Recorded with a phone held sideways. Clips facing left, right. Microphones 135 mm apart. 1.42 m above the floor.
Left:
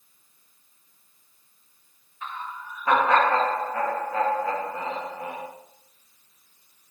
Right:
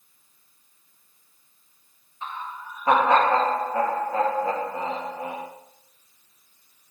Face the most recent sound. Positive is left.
turn(degrees=-30)  # may be behind; listen again after turning